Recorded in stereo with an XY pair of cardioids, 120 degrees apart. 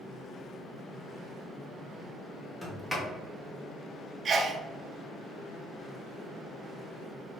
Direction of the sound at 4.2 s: 40° right.